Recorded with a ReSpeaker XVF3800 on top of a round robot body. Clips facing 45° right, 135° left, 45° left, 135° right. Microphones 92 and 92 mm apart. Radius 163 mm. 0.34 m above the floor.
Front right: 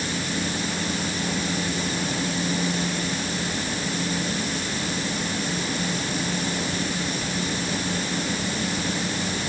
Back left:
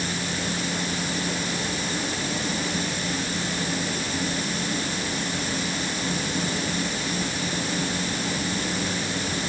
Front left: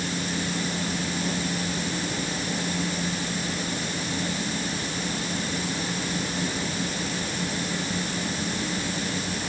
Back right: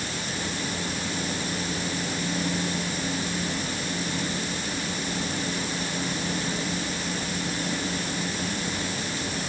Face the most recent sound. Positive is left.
No sound to turn to.